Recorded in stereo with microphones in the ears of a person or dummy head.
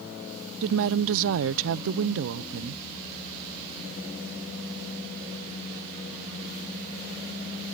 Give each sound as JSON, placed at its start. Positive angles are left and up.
{"t": 0.6, "sound": "a woman speaking", "side_deg": -70}